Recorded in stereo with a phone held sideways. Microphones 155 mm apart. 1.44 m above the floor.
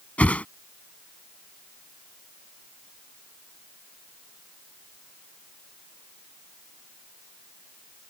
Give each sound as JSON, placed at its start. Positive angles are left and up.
{"t": 0.2, "sound": "a whoosh", "side_deg": 10}